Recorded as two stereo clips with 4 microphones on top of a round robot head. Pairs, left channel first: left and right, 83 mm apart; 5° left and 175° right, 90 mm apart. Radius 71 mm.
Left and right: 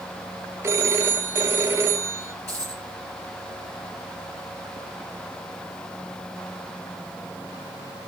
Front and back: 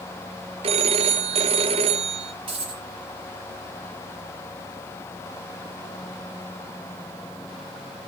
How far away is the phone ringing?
About 0.9 m.